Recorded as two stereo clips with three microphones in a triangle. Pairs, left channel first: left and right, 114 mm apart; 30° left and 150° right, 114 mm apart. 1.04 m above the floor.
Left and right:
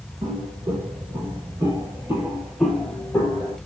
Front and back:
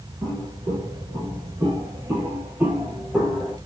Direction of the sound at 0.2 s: 105° right.